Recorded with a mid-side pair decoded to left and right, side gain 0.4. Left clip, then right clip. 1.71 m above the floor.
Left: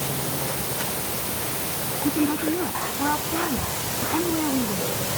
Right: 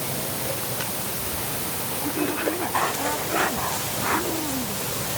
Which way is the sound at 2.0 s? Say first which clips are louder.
Left 2 dB; 45° left.